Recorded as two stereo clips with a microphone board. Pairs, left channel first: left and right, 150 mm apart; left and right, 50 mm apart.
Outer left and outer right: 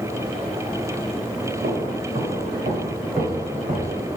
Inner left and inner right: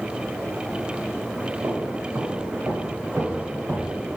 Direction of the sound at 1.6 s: 80° right.